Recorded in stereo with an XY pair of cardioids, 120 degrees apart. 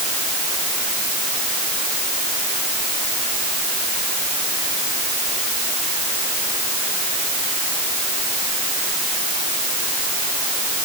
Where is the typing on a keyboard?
I don't hear typing on a keyboard.